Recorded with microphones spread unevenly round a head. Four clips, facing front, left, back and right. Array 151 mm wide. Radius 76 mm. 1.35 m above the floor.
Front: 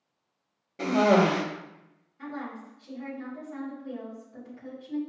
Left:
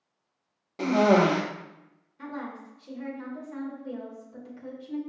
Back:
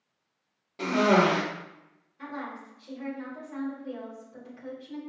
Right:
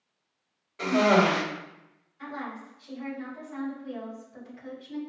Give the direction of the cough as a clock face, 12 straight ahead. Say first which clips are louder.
Left 1 dB, front 1 dB; 9 o'clock.